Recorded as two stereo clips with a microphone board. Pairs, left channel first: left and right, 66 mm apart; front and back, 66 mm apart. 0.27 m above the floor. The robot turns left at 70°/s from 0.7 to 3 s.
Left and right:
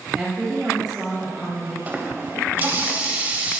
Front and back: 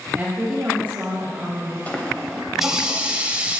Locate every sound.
0.1 s a woman speaking: 160° right, 1.1 m; by 1.8 s 125° left, 1.1 m
1.9 s a running tap: 50° right, 0.6 m; by 3.6 s 130° right, 0.6 m